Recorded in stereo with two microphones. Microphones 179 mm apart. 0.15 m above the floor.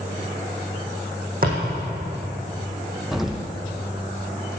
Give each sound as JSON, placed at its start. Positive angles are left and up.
{"t": 1.4, "sound": "a thud", "side_deg": -55, "distance_m": 4.5}
{"t": 3.1, "sound": "an explosion", "side_deg": 0, "distance_m": 1.0}